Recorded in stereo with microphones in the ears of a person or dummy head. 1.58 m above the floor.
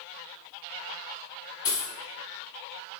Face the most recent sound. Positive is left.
turn(degrees=15)  # may be behind; listen again after turning